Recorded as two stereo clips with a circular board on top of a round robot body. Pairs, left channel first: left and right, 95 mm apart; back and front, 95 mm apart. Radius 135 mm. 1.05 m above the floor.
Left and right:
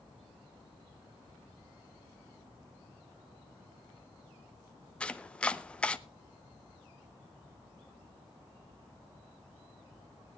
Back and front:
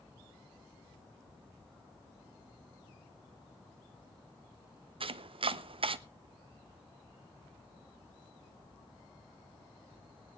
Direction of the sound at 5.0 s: 15° left.